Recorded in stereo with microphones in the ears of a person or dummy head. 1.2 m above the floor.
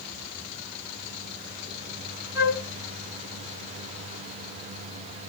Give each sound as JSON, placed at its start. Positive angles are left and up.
{"t": 2.4, "sound": "a flute", "side_deg": -20, "distance_m": 2.5}